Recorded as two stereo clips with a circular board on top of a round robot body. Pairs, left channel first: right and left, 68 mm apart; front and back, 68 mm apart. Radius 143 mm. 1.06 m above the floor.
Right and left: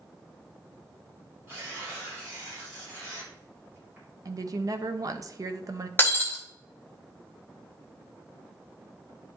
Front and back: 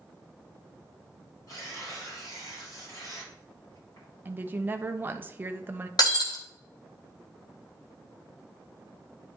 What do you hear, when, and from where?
1.5 s tearing paper: 30° left, 4 m
4.2 s a woman speaking: 120° left, 0.9 m
6.0 s breaking glass: 30° right, 1.0 m